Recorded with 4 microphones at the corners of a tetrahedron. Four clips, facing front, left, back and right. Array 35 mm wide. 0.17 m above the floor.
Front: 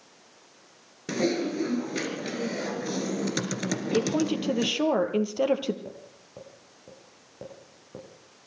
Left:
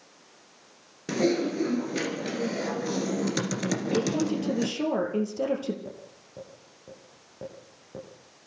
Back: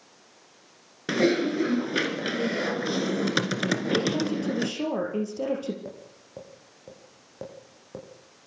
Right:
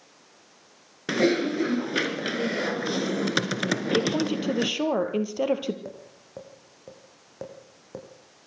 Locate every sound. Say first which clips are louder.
1.1 s typing on a keyboard: right 2 dB, back 4 dB; 130° right, 2.0 m
3.9 s a woman speaking: right 1 dB, even; 40° right, 3.5 m
5.8 s tapping: right 1 dB, back 1 dB; 115° right, 7 m